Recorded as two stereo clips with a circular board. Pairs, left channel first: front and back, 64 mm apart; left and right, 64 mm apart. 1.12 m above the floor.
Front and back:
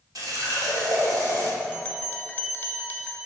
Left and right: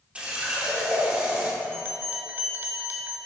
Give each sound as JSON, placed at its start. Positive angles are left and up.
{"t": 0.1, "sound": "a running tap", "azimuth_deg": -165, "distance_m": 1.8}
{"t": 1.6, "sound": "a bell", "azimuth_deg": -50, "distance_m": 0.9}